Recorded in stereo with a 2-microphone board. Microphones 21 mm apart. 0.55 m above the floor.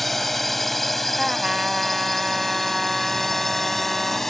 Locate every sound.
0.0 s a drone: 10° left (ahead or behind); by 4.3 s 15° left (ahead or behind)
1.2 s a trumpet: 25° right (ahead or behind)